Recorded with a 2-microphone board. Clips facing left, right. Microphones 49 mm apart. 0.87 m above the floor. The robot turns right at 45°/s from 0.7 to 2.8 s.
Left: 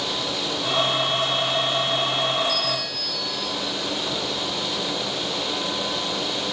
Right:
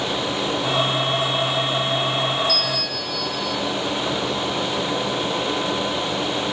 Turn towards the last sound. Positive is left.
turn(degrees=-70)  # may be behind; listen again after turning